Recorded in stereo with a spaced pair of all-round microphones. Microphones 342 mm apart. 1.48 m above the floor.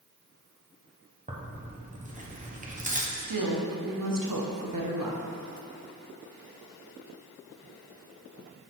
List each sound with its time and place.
1.3 s tearing paper: 20° right (ahead or behind), 0.9 m
3.1 s a woman speaking: 70° right (ahead or behind), 1.0 m